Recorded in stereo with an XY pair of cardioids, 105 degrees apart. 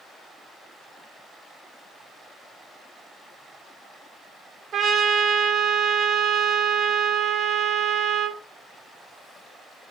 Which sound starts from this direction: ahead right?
A trumpet, at 4.7 s.